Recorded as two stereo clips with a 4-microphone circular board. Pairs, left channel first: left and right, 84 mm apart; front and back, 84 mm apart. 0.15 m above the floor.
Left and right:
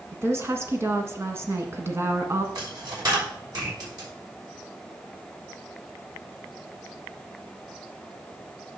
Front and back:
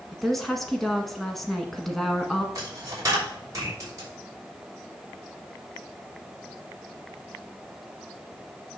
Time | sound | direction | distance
0.1 | a woman speaking | 85° right | 1.5 m
2.5 | a dropped coin | 130° right | 5.5 m